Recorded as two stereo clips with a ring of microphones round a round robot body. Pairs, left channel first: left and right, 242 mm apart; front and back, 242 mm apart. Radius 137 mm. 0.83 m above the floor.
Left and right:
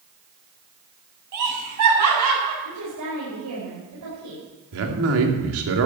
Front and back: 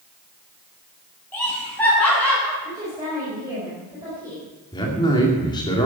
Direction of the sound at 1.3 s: 85° right.